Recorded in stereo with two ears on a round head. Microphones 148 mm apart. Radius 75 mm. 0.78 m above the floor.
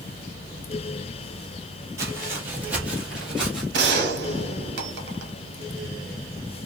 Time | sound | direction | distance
2.0 | footsteps | 20° right (ahead or behind) | 1.0 m
3.7 | a gunshot | 70° right (ahead or behind) | 0.7 m